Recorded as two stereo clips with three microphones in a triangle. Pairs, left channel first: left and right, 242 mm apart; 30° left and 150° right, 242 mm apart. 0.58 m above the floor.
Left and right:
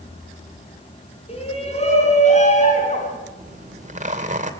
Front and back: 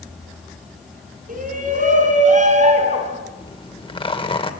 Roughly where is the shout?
Behind left.